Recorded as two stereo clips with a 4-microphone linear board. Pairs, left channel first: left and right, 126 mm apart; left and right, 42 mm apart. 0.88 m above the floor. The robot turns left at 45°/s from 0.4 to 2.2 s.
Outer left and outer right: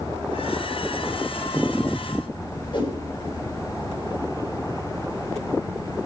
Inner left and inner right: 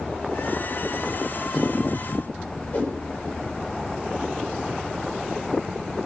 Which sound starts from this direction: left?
A whoosh, at 2.7 s.